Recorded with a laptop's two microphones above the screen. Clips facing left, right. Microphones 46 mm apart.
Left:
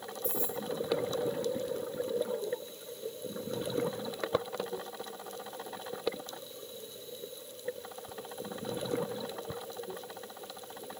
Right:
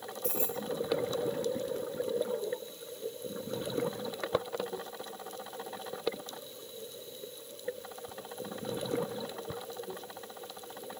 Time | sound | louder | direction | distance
0.2 | keys jangling | right 1 dB | 60° right (ahead or behind) | 6 m